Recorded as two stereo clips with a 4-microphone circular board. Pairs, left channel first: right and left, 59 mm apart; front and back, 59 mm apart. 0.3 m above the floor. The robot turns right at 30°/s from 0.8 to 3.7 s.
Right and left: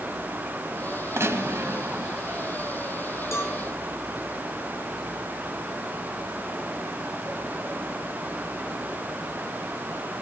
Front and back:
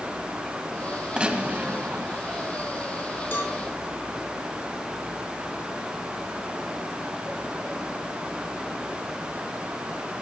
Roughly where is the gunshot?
Left.